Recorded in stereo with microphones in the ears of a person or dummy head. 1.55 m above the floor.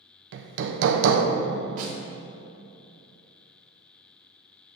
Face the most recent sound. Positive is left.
turn(degrees=-40)  # may be behind; listen again after turning